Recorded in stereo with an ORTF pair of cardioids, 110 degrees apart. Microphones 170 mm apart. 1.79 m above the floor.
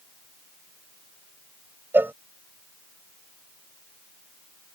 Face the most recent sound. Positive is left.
turn(degrees=-10)